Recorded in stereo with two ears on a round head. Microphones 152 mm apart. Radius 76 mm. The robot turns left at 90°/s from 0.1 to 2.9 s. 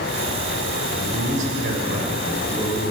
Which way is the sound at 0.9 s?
Straight ahead.